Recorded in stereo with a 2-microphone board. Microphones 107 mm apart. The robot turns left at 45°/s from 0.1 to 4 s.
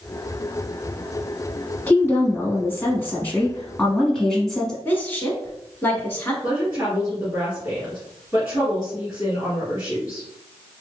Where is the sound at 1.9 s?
20° left (ahead or behind), 1.1 m; by 4.8 s 5° left (ahead or behind), 1.1 m.